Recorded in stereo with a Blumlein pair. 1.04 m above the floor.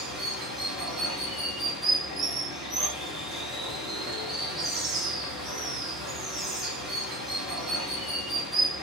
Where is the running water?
5° right, 1.1 m.